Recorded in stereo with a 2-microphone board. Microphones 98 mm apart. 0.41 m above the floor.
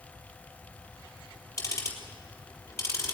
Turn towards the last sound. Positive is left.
turn(degrees=30)  # may be behind; listen again after turning